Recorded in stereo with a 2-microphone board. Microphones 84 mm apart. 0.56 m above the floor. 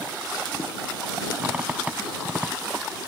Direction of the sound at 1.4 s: 15° right (ahead or behind).